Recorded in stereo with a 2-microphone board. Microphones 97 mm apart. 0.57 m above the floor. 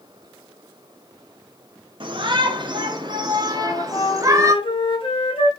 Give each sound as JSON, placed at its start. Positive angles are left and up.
{"t": 2.0, "sound": "a shout", "side_deg": -60, "distance_m": 2.5}
{"t": 3.5, "sound": "a flute", "side_deg": 70, "distance_m": 4.0}